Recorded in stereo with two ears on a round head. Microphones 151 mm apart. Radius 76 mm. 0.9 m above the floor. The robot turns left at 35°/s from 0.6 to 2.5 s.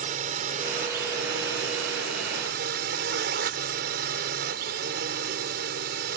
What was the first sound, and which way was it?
A drone, 45° right.